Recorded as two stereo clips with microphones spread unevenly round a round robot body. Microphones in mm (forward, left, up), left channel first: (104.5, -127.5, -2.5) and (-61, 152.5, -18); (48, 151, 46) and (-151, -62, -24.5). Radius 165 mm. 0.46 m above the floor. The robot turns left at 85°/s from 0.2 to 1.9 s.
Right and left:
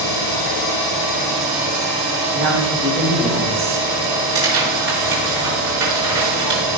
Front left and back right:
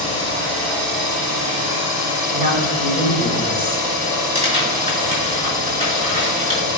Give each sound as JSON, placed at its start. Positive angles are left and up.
{"t": 0.0, "sound": "an engine running", "azimuth_deg": -50, "distance_m": 5.5}
{"t": 2.3, "sound": "a woman speaking", "azimuth_deg": 170, "distance_m": 4.0}
{"t": 4.3, "sound": "tearing paper", "azimuth_deg": 160, "distance_m": 5.5}